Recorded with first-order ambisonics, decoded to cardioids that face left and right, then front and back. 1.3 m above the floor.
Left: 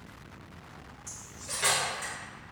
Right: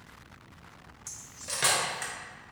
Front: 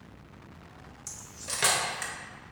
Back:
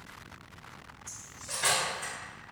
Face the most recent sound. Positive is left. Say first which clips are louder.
# right 2 dB, front 3 dB
turn(degrees=-30)